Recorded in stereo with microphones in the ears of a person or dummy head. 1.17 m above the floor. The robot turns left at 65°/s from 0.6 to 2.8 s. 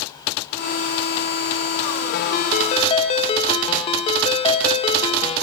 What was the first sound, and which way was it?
A ringtone, 80° left.